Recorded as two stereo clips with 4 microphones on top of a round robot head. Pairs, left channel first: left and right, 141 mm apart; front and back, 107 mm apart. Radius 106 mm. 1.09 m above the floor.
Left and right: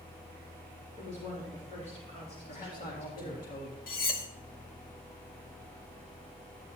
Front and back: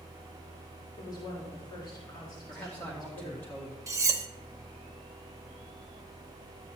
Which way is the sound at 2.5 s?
75° left.